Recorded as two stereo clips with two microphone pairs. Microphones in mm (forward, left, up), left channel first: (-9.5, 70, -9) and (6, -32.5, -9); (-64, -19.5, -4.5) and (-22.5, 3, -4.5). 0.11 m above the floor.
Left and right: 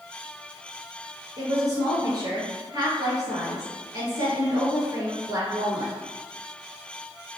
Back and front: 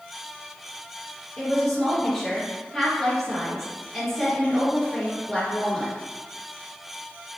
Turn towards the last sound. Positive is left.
turn(degrees=-75)